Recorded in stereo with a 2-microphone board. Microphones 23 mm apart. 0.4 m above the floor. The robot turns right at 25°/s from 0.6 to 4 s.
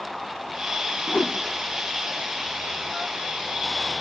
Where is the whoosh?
85° left, 1.5 m; by 1.4 s 80° left, 1.5 m.